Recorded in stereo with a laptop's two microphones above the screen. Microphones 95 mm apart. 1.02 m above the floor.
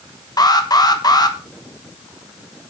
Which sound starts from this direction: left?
An alarm, at 0.4 s.